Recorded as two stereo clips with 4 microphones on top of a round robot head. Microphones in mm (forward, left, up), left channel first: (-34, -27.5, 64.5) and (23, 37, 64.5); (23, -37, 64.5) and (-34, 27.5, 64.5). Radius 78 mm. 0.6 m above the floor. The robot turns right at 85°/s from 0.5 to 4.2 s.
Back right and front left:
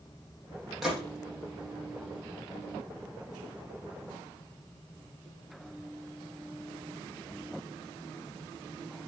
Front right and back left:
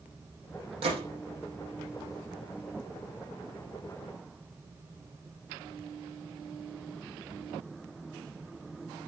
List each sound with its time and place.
0.8 s a gunshot: 135° left, 7.5 m; by 1.1 s 155° left, 7.5 m